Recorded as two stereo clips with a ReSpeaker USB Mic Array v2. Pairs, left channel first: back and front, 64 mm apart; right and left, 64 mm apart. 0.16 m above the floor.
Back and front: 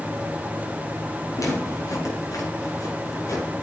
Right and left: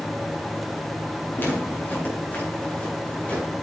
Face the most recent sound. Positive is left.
turn(degrees=-160)